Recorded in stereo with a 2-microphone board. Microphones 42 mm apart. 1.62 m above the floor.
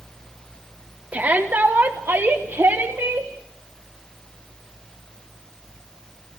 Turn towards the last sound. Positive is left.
turn(degrees=-85)